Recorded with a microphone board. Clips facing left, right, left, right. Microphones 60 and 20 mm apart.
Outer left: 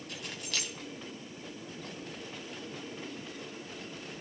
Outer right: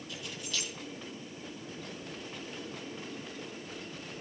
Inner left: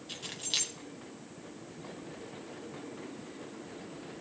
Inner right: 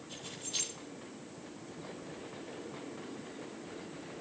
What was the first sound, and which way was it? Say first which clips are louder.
Keys jangling: outer left 1 dB, inner left 6 dB; 65° left (ahead or behind).